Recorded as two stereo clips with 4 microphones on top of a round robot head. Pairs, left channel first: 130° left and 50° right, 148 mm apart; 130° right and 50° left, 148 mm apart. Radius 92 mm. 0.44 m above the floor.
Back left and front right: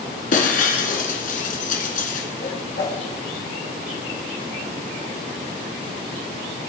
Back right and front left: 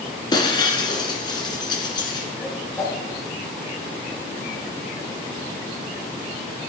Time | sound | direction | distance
0.3 | breaking glass | 165° left | 2.0 m
2.4 | a whoosh | 140° left | 4 m